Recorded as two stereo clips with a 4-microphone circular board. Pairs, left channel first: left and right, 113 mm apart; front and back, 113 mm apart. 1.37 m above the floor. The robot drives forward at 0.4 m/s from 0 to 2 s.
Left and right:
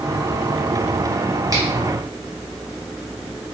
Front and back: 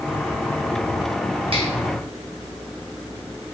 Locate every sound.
1.5 s a finger snap: 145° right, 1.1 m; by 1.7 s 150° right, 1.1 m